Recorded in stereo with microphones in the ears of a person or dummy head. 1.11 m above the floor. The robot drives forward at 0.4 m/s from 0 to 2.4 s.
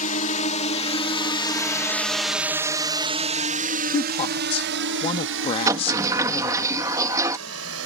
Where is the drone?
40° left (ahead or behind); by 7.9 s 80° right.